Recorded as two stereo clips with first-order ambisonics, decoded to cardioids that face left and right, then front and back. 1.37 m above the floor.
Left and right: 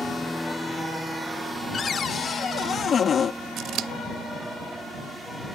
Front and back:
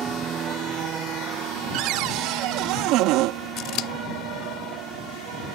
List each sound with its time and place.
0.0 s an aircraft: 165° left; by 5.5 s 170° right
1.7 s a cupboard door: 155° left
3.6 s scissors: 40° right